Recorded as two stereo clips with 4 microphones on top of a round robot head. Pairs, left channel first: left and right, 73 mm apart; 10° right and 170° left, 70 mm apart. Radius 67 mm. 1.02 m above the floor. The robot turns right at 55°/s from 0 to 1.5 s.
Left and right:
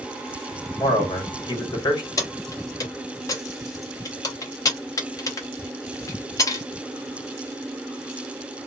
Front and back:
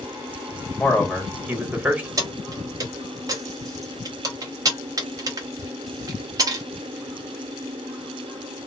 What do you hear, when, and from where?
0.8 s a man speaking: 65° left, 1.8 m; by 2.1 s 105° left, 1.8 m
2.2 s keys jangling: 135° left, 1.1 m